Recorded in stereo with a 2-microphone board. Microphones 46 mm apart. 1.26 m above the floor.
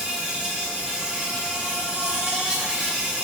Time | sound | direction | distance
0.0 | an insect | 20° right (ahead or behind) | 2 m